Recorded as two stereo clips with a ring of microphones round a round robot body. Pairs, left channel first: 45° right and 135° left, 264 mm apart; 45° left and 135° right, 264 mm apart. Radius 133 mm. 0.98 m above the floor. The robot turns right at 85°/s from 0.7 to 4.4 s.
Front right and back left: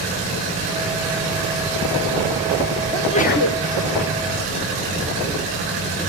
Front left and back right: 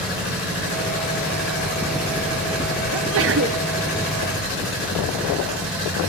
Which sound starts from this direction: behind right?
A sneeze, at 2.9 s.